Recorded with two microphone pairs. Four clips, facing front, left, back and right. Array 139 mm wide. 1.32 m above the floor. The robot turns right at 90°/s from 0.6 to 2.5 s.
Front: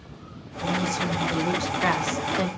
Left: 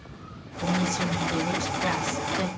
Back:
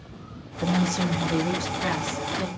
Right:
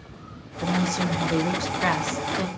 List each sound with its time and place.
0.6 s a woman speaking: 160° right, 0.8 m; by 2.5 s 10° left, 0.8 m